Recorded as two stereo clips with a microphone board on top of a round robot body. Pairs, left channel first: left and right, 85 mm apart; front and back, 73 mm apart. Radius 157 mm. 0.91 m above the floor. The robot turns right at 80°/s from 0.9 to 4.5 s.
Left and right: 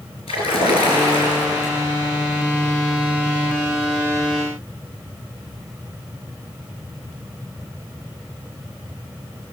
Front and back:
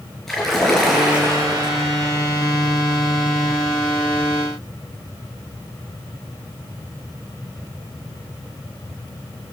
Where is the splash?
85° left, 4 m; by 1.8 s 160° left, 4 m.